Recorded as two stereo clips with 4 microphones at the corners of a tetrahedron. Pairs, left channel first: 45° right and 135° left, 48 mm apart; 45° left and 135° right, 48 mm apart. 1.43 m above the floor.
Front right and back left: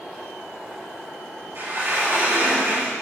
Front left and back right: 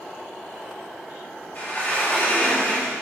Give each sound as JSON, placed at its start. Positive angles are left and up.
{"t": 1.6, "sound": "a sliding door", "azimuth_deg": 100, "distance_m": 7.5}